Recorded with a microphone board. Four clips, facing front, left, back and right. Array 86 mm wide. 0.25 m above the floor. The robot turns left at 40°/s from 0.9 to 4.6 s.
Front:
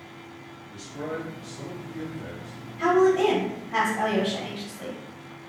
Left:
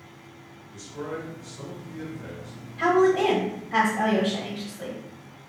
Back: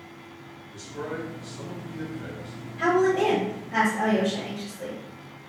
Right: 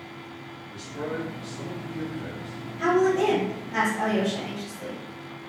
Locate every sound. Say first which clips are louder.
0.7 s a man speaking: right 2 dB, front 1 dB; 55° right, 1.7 m; by 2.7 s 125° right, 1.7 m
2.8 s a woman speaking: left 2 dB, front 2 dB; 125° left, 1.3 m; by 5.0 s 50° left, 1.3 m